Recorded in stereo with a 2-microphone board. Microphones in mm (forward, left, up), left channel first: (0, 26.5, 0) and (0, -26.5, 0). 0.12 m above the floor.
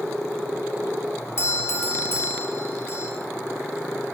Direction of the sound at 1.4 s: 50° left (ahead or behind).